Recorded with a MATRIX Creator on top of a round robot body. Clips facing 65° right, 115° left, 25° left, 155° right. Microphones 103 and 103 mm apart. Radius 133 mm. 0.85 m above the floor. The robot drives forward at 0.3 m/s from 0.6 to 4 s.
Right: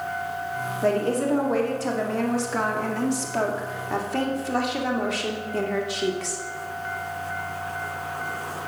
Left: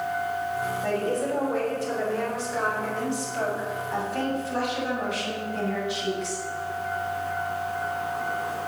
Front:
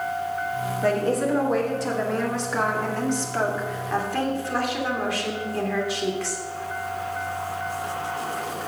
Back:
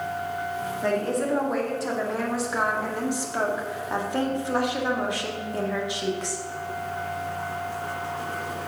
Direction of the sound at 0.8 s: 60° right.